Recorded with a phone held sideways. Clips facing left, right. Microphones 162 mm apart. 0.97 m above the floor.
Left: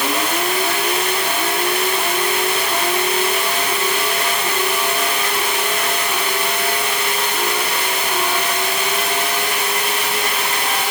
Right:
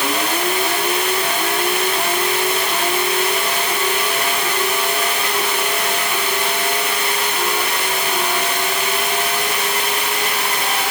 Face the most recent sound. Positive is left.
No sound to turn to.